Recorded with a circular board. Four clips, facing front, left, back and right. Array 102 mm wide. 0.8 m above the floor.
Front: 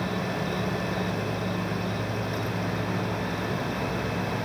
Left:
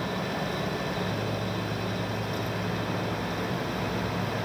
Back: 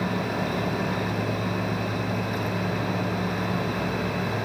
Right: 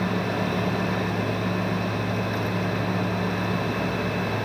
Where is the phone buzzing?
No phone buzzing in this recording.